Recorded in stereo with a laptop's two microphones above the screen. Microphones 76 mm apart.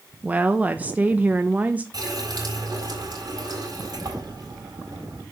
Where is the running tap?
55° right (ahead or behind), 4 m.